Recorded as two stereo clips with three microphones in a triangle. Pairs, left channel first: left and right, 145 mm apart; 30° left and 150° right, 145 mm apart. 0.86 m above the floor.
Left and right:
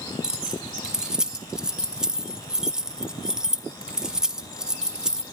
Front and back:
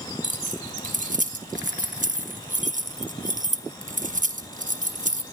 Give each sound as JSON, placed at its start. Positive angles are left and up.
{"t": 0.2, "sound": "keys jangling", "azimuth_deg": -175, "distance_m": 1.0}